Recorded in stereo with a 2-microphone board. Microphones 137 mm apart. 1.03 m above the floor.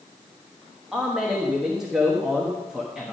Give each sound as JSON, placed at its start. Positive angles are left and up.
{"t": 0.9, "sound": "a man speaking", "side_deg": -5, "distance_m": 1.2}